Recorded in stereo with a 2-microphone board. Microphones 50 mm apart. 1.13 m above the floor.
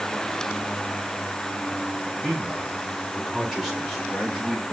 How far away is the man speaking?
About 4.5 m.